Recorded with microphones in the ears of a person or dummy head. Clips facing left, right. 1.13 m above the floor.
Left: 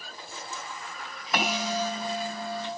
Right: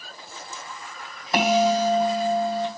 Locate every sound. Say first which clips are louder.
1.3 s a bell: right 9 dB; 30° right (ahead or behind), 3 m